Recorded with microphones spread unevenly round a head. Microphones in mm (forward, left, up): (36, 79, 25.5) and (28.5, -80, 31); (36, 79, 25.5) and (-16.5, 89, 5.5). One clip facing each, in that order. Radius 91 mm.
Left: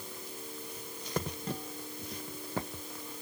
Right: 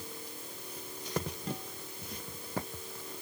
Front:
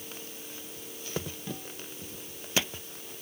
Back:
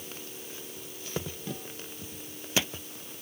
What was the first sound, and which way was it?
Only background noise.